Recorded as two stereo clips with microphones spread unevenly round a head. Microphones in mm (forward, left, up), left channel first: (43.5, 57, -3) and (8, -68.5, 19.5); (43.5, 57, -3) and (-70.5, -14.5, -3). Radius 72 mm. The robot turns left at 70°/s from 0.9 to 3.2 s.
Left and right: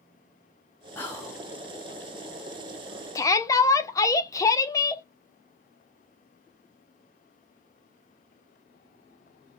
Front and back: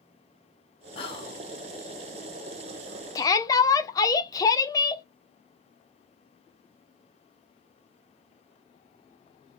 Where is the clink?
No clink in this recording.